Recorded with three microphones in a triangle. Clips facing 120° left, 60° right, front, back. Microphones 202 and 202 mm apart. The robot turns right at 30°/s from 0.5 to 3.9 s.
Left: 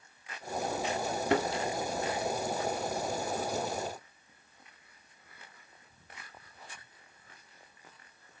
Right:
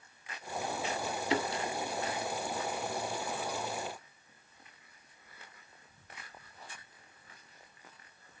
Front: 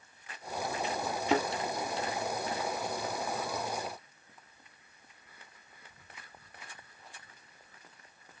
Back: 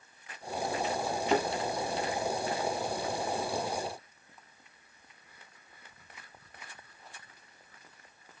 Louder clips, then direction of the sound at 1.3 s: Left 4 dB, even; 90° left.